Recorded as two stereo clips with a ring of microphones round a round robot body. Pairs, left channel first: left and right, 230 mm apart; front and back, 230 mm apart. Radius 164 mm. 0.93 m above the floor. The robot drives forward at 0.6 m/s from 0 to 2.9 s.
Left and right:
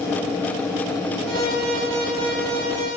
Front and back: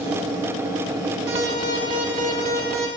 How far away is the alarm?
About 2 m.